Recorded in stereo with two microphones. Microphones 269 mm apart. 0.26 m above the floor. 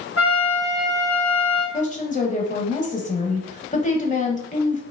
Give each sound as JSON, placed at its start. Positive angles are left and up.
{"t": 0.2, "sound": "a trumpet", "side_deg": 55, "distance_m": 2.5}
{"t": 1.7, "sound": "a woman speaking", "side_deg": 25, "distance_m": 1.0}